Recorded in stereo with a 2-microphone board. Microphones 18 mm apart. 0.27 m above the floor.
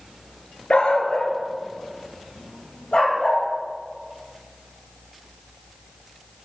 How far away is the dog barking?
About 1.1 m.